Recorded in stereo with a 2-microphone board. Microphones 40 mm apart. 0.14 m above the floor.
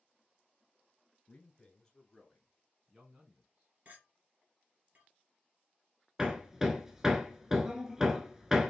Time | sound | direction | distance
1.3 | a man speaking | 30° left (ahead or behind) | 1.9 m
3.9 | a clink | 40° right (ahead or behind) | 2 m
6.2 | hammering | 15° right (ahead or behind) | 0.6 m